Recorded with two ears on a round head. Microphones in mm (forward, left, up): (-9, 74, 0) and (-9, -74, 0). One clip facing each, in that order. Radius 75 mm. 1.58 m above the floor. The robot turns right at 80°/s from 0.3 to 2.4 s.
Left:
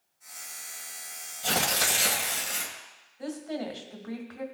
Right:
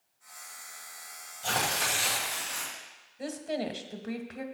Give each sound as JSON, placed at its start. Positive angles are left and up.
{"t": 1.4, "sound": "tearing paper", "azimuth_deg": 20, "distance_m": 1.8}
{"t": 3.2, "sound": "a woman speaking", "side_deg": -35, "distance_m": 1.5}